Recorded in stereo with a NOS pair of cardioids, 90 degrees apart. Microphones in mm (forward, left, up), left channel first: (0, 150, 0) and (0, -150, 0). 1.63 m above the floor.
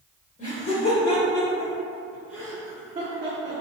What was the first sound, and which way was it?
Laughter, 25° left.